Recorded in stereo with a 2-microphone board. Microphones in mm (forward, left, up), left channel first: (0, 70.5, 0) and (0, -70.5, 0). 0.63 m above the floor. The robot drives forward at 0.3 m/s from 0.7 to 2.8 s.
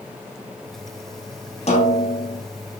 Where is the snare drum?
50° left (ahead or behind), 4.5 m.